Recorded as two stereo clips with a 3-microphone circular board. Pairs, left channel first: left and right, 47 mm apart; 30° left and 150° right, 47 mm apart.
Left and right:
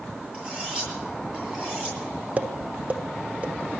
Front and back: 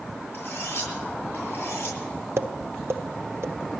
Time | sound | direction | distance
0.3 | cutlery clinking | 20° right | 10 m
2.4 | tapping | 140° right | 1.5 m